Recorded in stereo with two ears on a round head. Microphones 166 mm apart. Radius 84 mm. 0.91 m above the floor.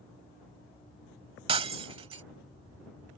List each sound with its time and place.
1.5 s breaking glass: 30° right (ahead or behind)